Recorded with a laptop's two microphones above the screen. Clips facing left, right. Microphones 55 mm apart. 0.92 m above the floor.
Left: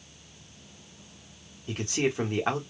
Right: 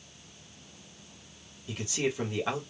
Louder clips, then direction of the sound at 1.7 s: Left 3 dB; 45° left (ahead or behind).